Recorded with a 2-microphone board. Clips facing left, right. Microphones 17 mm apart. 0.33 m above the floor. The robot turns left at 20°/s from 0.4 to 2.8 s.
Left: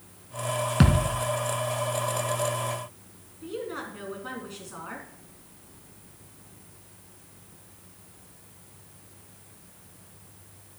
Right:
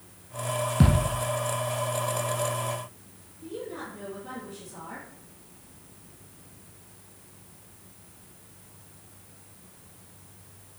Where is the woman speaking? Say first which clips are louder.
Left 2 dB; 60° left (ahead or behind), 3.5 m.